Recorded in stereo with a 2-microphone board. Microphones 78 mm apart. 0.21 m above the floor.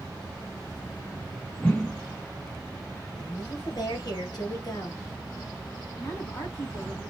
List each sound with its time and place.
1.6 s a whoosh: 10° left (ahead or behind), 2 m
3.2 s a woman speaking: 60° left (ahead or behind), 2 m
6.0 s a woman speaking: 35° left (ahead or behind), 1.9 m